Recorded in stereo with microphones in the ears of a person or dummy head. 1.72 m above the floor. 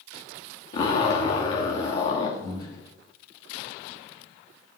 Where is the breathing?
35° left (ahead or behind), 2.5 m.